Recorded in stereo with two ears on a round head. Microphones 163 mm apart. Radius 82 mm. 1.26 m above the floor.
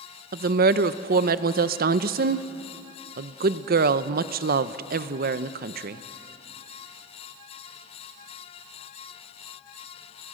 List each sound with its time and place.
0.3 s a woman speaking: 55° right (ahead or behind), 0.7 m